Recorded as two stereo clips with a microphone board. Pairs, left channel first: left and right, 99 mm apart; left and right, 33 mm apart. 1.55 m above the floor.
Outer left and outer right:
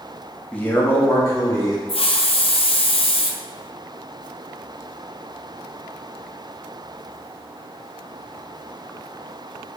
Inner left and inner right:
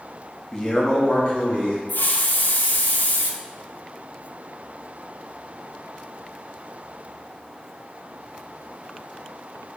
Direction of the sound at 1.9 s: 70° left (ahead or behind).